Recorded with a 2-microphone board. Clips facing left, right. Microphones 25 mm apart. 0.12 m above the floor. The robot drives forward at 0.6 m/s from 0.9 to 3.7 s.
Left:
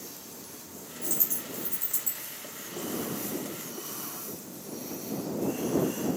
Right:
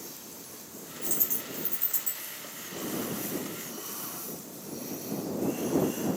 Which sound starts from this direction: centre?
A dropped coin, at 1.0 s.